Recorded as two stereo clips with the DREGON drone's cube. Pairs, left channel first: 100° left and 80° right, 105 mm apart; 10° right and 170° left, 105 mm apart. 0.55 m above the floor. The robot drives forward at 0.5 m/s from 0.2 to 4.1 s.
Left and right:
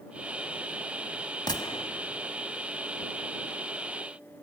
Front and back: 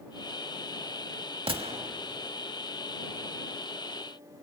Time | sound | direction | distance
1.5 | a gunshot | 145° left | 0.8 m